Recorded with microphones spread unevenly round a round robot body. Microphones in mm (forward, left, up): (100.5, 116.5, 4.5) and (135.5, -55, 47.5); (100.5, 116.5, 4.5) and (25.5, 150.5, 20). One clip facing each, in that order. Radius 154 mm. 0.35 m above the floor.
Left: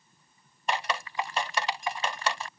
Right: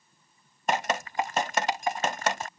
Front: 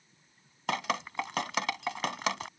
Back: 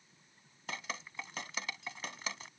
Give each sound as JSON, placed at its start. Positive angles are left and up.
{"t": 0.7, "sound": "dripping", "azimuth_deg": -30}